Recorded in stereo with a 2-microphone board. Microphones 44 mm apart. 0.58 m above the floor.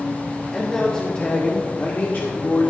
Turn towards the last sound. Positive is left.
turn(degrees=50)  # may be behind; listen again after turning